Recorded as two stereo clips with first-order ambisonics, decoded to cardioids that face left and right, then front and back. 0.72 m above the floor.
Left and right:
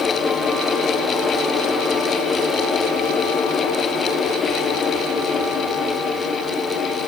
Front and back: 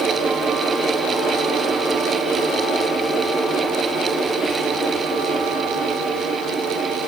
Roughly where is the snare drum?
I don't hear a snare drum.